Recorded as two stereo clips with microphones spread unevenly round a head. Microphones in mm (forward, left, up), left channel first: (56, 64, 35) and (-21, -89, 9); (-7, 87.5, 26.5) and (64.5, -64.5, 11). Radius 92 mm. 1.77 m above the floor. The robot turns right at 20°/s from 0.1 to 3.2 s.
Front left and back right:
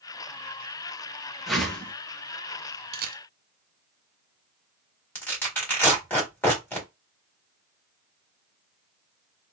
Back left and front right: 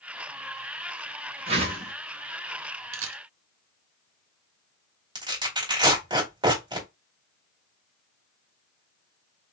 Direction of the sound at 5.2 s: 5° right.